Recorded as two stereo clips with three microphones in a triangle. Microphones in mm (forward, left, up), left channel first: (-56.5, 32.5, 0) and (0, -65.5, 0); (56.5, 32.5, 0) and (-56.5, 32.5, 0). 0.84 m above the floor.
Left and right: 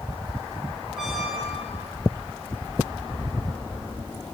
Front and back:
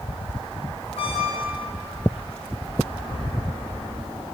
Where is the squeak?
25° left, 1.9 m.